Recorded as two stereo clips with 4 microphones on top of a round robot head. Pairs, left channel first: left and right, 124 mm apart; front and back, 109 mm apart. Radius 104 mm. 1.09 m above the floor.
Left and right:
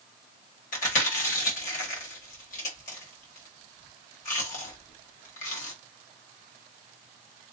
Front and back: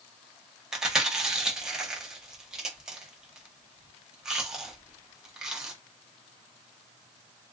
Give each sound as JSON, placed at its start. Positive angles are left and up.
{"t": 0.7, "sound": "chewing", "azimuth_deg": 95, "distance_m": 1.3}